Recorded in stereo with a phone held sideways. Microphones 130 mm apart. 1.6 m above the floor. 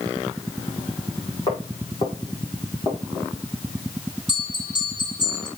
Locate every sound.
1.5 s footsteps: 35° left (ahead or behind), 5.5 m; by 3.3 s 20° left (ahead or behind), 5.5 m
4.3 s a bell: 40° left (ahead or behind), 3 m